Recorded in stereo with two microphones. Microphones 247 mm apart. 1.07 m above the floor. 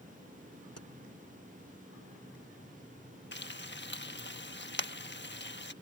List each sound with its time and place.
0.8 s keys jangling: 80° left
3.3 s frying: 45° left (ahead or behind)